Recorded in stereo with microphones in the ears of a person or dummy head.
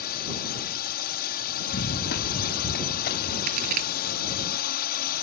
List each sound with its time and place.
0.0 s a drone: 50° left (ahead or behind)
1.7 s running footsteps: 60° left (ahead or behind); by 3.4 s 50° left (ahead or behind)
3.5 s a crack: 45° right (ahead or behind)